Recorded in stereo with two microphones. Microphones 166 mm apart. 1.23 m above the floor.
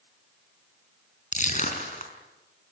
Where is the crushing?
45° left (ahead or behind), 4 m.